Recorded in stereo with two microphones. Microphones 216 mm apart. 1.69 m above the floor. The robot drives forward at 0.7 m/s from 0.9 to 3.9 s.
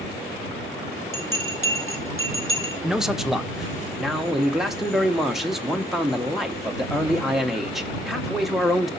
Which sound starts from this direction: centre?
A man speaking, at 2.8 s.